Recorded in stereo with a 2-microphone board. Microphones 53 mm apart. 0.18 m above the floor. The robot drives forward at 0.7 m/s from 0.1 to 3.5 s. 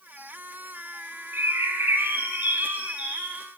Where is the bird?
50° right (ahead or behind), 0.6 m; by 3.5 s 20° right (ahead or behind), 1.5 m.